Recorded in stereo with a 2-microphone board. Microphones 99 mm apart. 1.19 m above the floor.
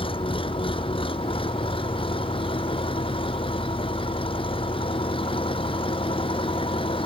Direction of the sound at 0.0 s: 65° left (ahead or behind).